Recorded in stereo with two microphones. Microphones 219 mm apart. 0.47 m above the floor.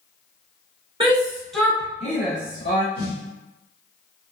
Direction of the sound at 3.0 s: 25° left (ahead or behind).